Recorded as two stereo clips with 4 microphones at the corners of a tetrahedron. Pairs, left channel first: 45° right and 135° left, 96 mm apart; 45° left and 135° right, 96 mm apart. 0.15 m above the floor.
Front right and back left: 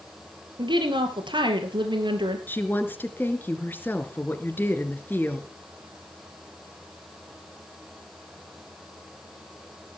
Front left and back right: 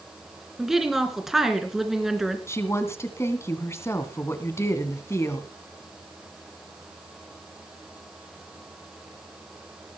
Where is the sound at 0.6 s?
140° left, 2.5 m.